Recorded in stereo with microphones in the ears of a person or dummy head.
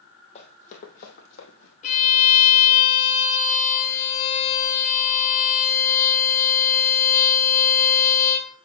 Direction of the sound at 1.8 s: 40° left (ahead or behind).